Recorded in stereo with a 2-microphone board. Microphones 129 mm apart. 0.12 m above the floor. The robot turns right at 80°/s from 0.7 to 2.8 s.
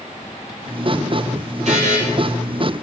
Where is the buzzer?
60° right (ahead or behind), 1.5 m; by 2.0 s 70° right (ahead or behind), 1.5 m.